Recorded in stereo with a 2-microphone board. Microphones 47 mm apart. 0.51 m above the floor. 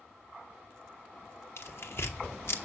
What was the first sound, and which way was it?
Tearing paper, 60° left (ahead or behind).